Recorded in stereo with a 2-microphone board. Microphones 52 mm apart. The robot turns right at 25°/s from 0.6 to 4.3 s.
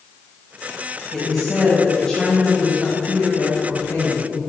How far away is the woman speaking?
About 1.9 m.